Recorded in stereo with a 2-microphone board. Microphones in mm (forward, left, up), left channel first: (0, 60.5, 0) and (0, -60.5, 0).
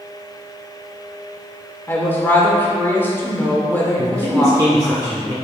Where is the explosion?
No explosion in this recording.